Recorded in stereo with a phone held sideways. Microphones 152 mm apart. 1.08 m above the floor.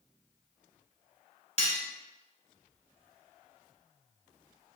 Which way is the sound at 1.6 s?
45° left (ahead or behind).